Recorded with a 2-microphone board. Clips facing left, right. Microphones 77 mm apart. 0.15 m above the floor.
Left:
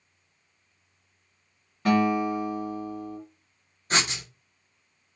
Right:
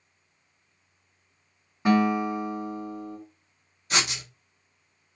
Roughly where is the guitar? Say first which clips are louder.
Even; centre.